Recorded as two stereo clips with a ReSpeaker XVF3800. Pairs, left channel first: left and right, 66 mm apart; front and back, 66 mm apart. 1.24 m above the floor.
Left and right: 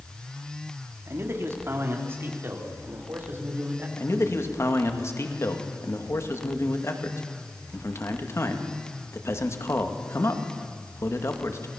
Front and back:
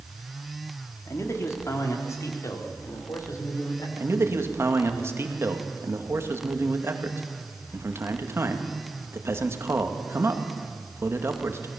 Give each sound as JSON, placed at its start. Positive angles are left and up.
{"t": 1.1, "sound": "a man speaking", "azimuth_deg": -45, "distance_m": 3.0}
{"t": 4.0, "sound": "a man speaking", "azimuth_deg": 135, "distance_m": 2.0}